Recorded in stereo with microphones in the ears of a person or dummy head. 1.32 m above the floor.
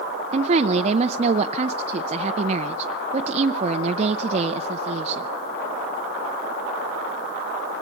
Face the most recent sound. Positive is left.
turn(degrees=-35)  # may be behind; listen again after turning